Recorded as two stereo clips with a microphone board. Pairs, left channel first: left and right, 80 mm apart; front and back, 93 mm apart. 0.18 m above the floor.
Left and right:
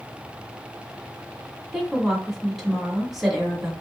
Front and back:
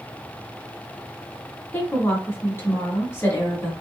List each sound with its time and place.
1.7 s a woman speaking: 5° right, 1.7 m